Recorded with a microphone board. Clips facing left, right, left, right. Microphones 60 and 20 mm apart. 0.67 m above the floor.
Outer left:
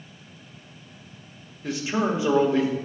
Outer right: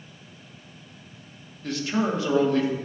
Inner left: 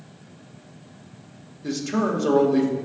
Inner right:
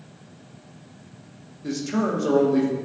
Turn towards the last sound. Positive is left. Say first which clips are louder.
# outer left 1 dB, inner left 1 dB
turn(degrees=10)  # may be behind; listen again after turning